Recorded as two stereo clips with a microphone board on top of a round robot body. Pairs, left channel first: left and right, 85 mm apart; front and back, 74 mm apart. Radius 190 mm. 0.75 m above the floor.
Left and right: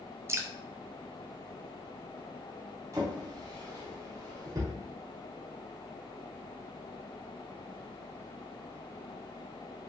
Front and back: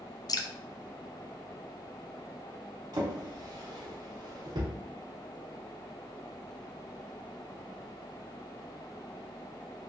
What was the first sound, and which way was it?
Dripping, 30° right.